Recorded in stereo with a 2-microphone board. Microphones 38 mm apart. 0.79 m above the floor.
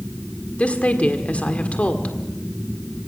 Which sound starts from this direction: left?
A woman speaking, at 0.6 s.